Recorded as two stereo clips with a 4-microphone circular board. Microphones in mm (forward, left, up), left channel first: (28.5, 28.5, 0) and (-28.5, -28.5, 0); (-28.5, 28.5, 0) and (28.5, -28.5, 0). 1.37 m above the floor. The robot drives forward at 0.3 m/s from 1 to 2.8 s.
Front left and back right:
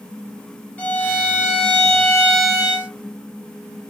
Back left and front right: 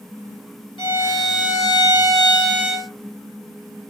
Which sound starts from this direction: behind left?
A violin, at 0.8 s.